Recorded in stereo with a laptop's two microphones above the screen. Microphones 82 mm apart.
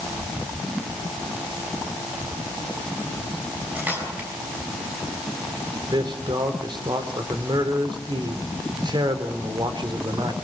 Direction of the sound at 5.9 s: 70° right (ahead or behind).